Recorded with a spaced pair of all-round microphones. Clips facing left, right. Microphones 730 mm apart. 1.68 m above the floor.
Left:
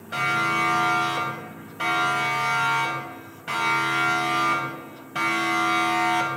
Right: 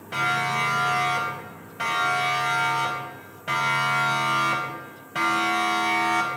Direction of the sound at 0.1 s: 30° right (ahead or behind).